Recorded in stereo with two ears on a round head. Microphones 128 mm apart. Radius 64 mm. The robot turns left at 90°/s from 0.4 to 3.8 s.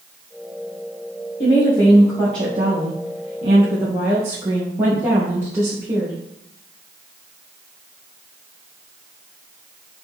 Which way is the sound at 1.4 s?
55° left.